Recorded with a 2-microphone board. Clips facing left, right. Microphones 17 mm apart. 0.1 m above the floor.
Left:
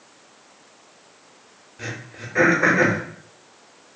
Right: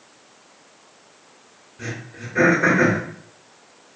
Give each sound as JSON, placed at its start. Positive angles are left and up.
{"t": 1.8, "sound": "throat clearing", "side_deg": 25, "distance_m": 1.4}